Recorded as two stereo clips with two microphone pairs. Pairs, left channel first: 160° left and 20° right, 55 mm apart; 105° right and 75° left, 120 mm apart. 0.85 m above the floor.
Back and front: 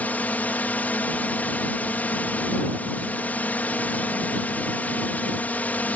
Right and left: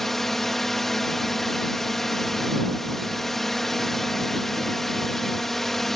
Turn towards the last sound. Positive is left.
turn(degrees=170)